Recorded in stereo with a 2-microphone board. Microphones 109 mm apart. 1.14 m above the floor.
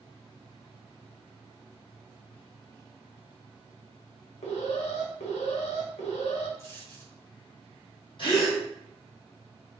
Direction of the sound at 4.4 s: 80° left.